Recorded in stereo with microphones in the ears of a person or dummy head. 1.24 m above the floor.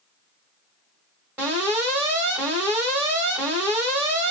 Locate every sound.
1.4 s an alarm: 10° right (ahead or behind), 1.3 m